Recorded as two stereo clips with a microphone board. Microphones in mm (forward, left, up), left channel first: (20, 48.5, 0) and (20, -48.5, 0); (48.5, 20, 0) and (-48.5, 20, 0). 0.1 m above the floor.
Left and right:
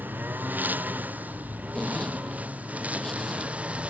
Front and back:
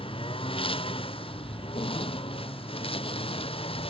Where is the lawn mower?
20° right; by 3.9 s 15° right.